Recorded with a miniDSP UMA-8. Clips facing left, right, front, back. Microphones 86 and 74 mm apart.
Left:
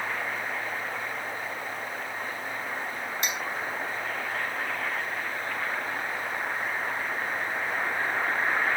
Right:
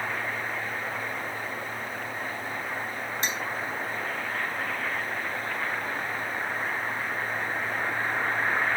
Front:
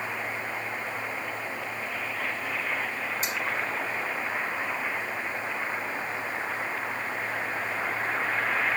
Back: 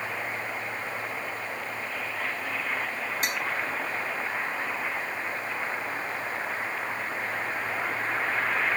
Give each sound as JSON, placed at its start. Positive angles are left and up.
{"t": 3.2, "sound": "tapping", "azimuth_deg": -145}